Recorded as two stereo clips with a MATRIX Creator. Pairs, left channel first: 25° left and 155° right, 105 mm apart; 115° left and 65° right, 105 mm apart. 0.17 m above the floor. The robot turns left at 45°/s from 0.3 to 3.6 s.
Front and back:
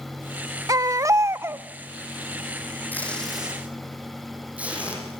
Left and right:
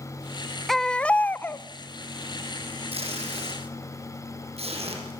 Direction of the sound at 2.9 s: 50° right.